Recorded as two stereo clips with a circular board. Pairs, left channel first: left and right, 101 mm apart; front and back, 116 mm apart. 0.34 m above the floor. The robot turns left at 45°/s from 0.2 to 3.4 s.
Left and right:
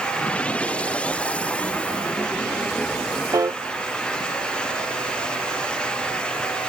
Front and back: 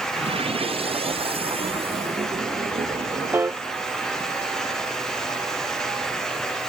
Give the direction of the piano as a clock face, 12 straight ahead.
4 o'clock.